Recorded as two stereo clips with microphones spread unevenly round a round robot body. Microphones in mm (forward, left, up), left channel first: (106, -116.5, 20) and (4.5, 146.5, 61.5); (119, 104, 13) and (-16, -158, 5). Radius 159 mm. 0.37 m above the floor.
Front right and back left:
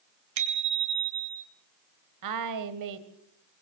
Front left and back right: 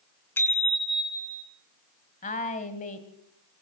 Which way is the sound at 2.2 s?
130° left.